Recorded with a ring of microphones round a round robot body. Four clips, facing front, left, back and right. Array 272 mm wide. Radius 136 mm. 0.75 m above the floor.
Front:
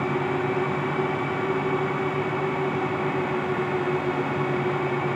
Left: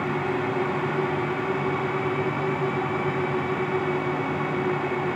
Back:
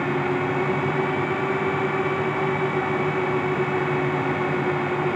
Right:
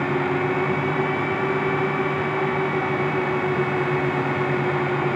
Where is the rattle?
I don't hear a rattle.